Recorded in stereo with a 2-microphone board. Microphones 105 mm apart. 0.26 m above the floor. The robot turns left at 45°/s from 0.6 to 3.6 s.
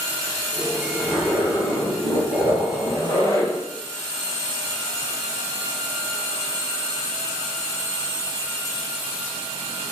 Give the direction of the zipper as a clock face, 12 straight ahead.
7 o'clock.